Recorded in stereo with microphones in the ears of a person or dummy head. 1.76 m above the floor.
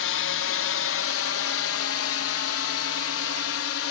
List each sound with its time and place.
0.0 s a drone: 60° left (ahead or behind); by 3.9 s 65° left (ahead or behind)